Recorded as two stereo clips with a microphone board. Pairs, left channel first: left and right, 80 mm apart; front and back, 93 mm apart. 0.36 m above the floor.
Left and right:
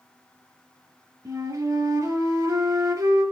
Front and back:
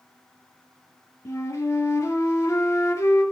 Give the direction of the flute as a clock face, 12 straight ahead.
2 o'clock.